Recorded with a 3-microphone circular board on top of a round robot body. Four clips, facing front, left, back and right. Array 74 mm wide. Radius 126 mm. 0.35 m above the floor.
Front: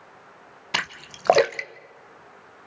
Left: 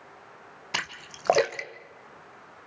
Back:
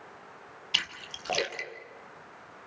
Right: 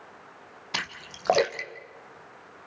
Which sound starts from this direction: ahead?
A splash, at 0.7 s.